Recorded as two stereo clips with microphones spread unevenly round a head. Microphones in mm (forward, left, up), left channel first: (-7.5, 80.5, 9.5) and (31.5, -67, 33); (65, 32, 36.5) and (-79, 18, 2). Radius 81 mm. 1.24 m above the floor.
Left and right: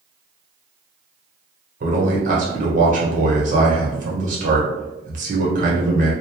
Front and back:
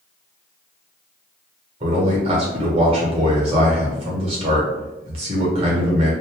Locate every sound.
1.8 s a man speaking: 120° right, 1.0 m